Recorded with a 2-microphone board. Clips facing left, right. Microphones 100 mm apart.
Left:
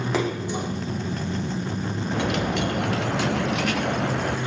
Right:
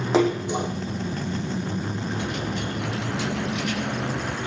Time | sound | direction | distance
0.1 | a splash | 20° right (ahead or behind) | 4.5 m
2.1 | a dropped coin | 85° left | 2.5 m